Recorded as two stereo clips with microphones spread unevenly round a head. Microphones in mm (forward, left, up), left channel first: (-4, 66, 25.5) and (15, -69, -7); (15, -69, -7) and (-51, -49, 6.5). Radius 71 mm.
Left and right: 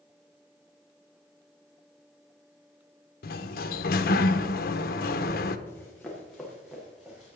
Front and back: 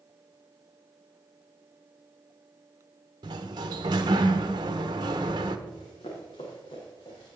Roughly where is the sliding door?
Behind left.